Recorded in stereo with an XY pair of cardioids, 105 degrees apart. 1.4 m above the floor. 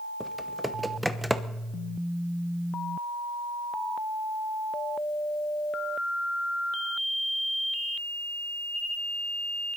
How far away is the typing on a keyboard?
About 0.9 m.